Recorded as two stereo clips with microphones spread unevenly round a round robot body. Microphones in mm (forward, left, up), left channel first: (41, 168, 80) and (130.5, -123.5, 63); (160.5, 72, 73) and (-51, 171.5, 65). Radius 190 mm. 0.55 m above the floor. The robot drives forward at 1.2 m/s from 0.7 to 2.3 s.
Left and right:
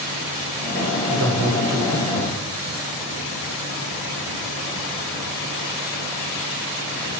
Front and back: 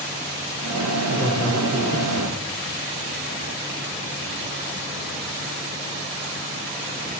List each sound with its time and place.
1.1 s a man speaking: 105° right, 1.5 m; by 2.4 s 145° right, 2.5 m